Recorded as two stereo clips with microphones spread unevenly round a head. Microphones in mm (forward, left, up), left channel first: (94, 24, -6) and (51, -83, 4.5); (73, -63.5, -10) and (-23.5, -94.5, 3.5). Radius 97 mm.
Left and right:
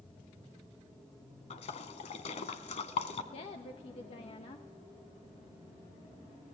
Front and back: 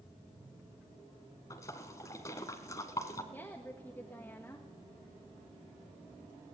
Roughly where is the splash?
Left.